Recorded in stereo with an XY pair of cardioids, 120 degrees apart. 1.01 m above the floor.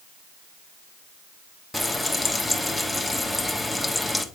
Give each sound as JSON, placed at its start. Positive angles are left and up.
{"t": 1.7, "sound": "frying", "azimuth_deg": 5, "distance_m": 1.1}